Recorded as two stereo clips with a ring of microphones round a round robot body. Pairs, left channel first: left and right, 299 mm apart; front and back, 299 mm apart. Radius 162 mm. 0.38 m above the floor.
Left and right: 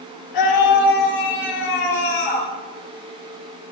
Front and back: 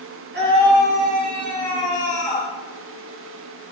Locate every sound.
0.3 s a scream: 120° left, 9.5 m; by 2.5 s 110° left, 9.5 m